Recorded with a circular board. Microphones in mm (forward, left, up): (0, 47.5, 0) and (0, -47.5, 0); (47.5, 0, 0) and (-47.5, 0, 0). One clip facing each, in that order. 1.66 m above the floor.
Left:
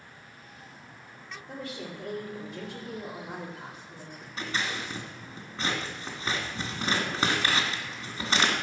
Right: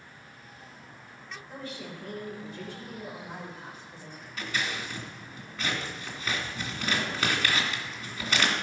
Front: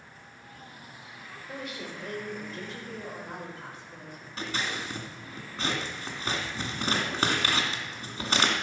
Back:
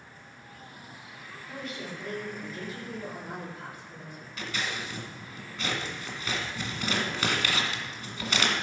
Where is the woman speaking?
85° left, 4.5 m; by 4.3 s 110° left, 4 m.